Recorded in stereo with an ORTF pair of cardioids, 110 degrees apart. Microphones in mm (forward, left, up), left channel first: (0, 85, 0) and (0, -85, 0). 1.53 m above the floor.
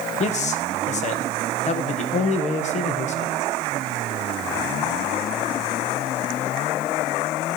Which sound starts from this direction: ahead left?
A man speaking, at 0.2 s.